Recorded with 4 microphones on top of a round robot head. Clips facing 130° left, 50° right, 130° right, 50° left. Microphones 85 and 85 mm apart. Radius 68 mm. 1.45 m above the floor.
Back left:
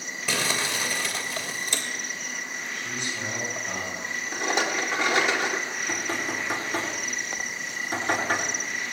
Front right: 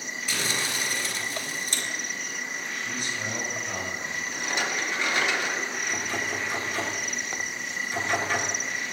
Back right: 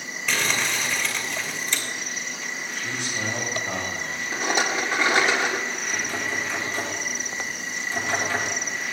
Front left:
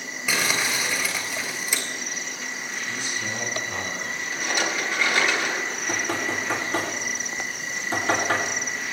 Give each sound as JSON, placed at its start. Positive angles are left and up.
{"t": 0.3, "sound": "crumpling", "azimuth_deg": 130, "distance_m": 3.5}
{"t": 2.7, "sound": "a man speaking", "azimuth_deg": -160, "distance_m": 9.5}
{"t": 4.3, "sound": "a rattle", "azimuth_deg": 170, "distance_m": 2.0}
{"t": 5.7, "sound": "knocking", "azimuth_deg": 85, "distance_m": 9.0}